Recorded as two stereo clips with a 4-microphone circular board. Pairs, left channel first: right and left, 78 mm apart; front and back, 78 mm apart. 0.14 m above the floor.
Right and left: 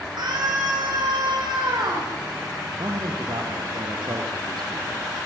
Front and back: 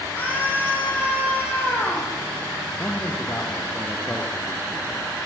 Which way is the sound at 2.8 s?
65° left.